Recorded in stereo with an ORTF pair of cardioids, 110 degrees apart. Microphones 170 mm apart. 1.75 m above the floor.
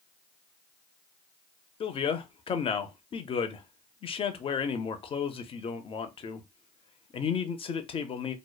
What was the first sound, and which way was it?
A man speaking, 35° left.